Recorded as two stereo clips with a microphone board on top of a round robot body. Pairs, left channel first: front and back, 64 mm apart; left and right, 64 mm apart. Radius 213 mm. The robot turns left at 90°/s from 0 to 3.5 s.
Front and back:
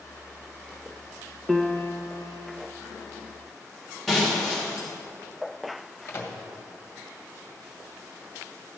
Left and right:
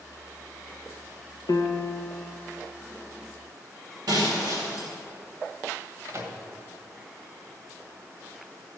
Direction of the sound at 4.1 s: 90° right.